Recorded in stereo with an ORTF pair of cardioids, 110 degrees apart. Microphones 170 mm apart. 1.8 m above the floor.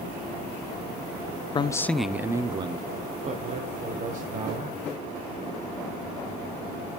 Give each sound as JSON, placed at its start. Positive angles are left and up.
{"t": 1.6, "sound": "a man speaking", "azimuth_deg": 30, "distance_m": 0.6}